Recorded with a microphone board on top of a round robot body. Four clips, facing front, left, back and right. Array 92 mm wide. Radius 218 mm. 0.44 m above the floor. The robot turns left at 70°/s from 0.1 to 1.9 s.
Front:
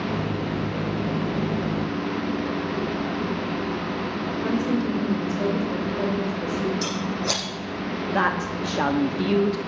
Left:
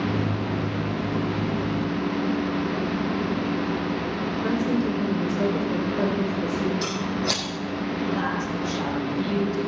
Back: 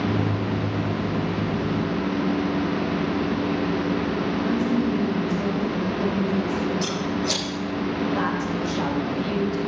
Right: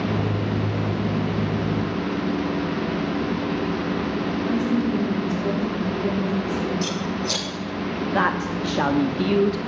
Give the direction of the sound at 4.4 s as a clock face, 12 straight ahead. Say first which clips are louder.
Right 1 dB, even; 10 o'clock.